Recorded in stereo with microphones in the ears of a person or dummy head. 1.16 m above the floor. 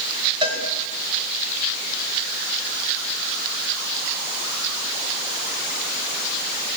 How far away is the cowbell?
About 5.5 m.